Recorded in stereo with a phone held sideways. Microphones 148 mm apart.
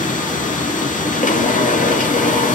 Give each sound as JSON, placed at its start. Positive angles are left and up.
{"t": 0.0, "sound": "a machine running", "side_deg": 60, "distance_m": 2.5}